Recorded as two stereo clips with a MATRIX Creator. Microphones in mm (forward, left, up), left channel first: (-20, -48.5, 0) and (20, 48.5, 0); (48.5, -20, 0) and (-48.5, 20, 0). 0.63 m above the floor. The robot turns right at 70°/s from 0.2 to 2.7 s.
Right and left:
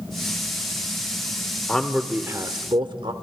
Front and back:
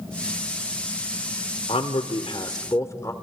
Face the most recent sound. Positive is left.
turn(degrees=35)